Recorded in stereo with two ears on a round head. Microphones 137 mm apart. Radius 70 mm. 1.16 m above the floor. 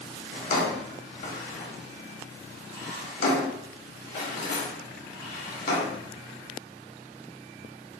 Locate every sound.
0.3 s a drawer: 60° left (ahead or behind), 1.1 m